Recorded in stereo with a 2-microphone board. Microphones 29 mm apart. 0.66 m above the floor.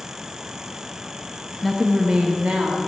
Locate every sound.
1.6 s a woman speaking: centre (ahead or behind), 0.6 m; by 2.8 s 60° right (ahead or behind), 1.0 m